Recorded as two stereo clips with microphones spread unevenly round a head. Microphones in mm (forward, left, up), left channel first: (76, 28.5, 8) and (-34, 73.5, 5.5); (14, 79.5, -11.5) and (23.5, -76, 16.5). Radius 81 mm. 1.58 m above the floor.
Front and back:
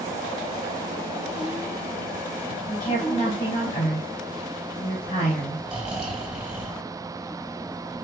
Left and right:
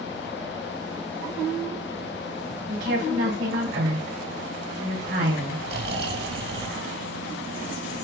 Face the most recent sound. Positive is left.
turn(degrees=-120)